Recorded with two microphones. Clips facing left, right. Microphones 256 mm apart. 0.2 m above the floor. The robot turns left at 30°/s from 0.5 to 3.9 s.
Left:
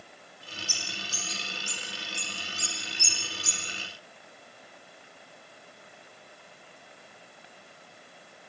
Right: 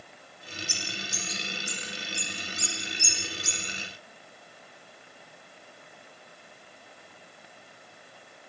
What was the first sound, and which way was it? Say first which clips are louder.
A bird: right 3 dB; 25° right (ahead or behind).